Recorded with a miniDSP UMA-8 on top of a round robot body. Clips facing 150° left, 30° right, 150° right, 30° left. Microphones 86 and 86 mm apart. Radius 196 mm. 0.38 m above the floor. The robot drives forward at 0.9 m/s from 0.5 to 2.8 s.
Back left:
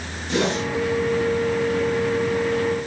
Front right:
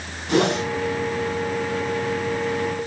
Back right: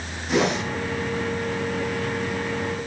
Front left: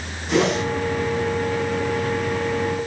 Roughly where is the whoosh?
Ahead right.